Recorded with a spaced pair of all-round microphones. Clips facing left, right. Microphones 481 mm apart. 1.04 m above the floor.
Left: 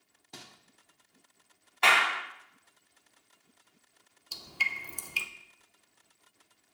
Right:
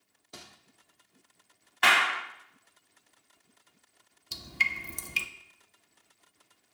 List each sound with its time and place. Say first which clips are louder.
0.3 s crumpling: even; 10° left (ahead or behind), 1.0 m
1.8 s a clap: even; 35° right (ahead or behind), 0.8 m
4.3 s dripping: right 3 dB; 40° right (ahead or behind), 0.6 m